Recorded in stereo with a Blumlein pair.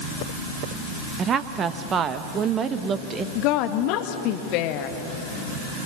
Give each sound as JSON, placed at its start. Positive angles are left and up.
{"t": 1.2, "sound": "a woman speaking", "azimuth_deg": -25, "distance_m": 1.4}
{"t": 3.4, "sound": "a woman speaking", "azimuth_deg": 40, "distance_m": 1.7}